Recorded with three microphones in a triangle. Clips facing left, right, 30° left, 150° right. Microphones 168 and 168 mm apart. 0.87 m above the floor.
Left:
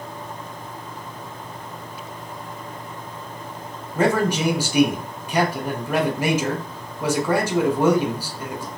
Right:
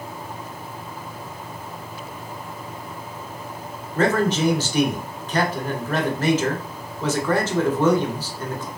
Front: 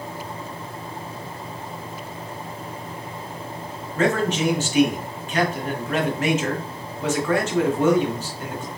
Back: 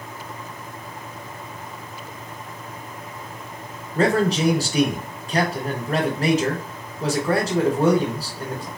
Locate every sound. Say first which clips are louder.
4.0 s a man speaking: even, back 2 dB; 165° left, 0.7 m